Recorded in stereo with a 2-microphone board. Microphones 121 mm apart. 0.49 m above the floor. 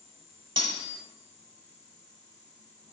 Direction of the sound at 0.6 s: 45° right (ahead or behind).